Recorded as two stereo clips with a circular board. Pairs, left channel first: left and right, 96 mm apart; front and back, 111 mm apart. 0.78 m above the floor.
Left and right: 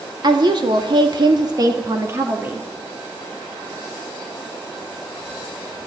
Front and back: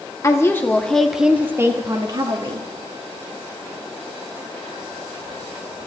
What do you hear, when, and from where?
0.2 s a woman speaking: 60° right, 2.0 m; by 2.7 s 160° right, 2 m